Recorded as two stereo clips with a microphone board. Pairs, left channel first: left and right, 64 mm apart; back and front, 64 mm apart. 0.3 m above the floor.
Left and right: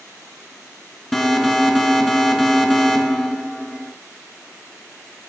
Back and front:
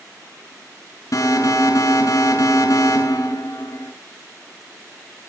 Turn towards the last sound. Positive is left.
turn(degrees=170)